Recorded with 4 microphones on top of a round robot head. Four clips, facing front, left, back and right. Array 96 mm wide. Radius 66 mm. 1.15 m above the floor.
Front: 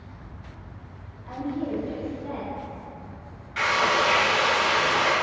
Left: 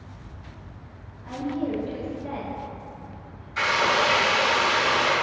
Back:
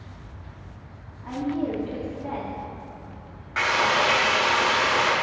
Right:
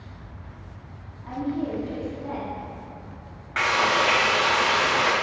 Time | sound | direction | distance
1.2 | a woman speaking | 160° right | 2 m
3.6 | frying | 130° right | 2 m